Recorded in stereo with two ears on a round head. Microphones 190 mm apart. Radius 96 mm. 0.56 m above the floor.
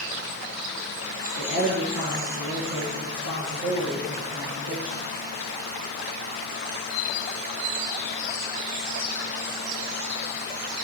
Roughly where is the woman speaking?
Right.